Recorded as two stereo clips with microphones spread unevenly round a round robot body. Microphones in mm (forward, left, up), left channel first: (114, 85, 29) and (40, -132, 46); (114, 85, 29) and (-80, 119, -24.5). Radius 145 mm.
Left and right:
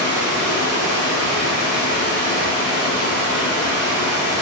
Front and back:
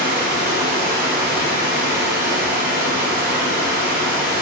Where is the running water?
130° left, 1.1 m.